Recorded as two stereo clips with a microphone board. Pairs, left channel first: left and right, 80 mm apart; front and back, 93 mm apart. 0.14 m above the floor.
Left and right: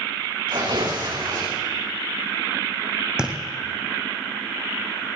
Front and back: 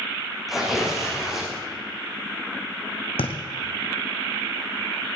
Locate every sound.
0.5 s tearing paper: 90° right, 6 m
3.2 s a thud: 10° right, 2 m